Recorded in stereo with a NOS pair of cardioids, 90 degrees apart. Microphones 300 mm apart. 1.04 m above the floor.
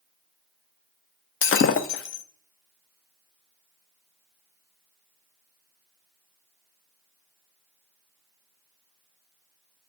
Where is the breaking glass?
45° left, 0.6 m.